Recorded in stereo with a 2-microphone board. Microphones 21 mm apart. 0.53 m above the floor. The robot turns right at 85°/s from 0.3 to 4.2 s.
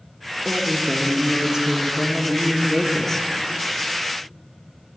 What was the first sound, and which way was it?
A woman speaking, 170° left.